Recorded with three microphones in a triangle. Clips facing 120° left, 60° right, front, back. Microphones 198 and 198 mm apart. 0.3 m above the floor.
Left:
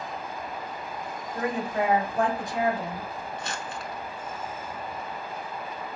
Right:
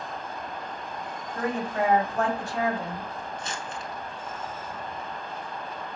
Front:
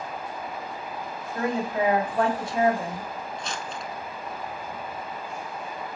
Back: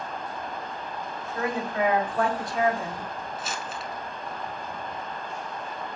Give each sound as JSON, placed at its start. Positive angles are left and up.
{"t": 1.4, "sound": "a woman speaking", "azimuth_deg": 55, "distance_m": 1.2}
{"t": 3.4, "sound": "crumpling", "azimuth_deg": 95, "distance_m": 0.6}